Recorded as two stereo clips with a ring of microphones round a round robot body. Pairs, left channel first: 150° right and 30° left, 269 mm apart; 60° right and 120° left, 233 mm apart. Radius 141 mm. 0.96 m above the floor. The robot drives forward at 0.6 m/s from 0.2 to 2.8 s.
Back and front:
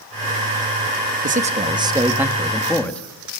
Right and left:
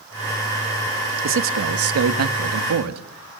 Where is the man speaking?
90° left, 1.4 m; by 3.4 s 125° left, 1.7 m.